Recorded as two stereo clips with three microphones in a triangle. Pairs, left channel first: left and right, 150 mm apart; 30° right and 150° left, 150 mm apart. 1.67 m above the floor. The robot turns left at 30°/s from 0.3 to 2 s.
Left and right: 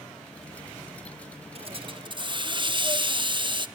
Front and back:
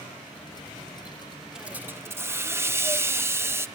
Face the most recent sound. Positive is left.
turn(degrees=-140)